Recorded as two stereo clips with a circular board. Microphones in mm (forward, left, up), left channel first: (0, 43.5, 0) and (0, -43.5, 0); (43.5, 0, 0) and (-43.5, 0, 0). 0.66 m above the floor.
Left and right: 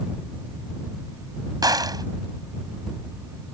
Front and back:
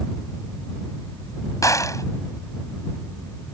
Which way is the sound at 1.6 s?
50° right.